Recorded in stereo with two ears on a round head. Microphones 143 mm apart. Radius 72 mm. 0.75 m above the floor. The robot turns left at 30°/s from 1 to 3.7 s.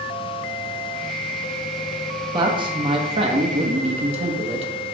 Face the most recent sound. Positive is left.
turn(degrees=-90)